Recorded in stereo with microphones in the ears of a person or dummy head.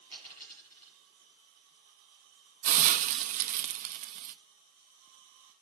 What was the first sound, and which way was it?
A dropped coin, 25° right (ahead or behind).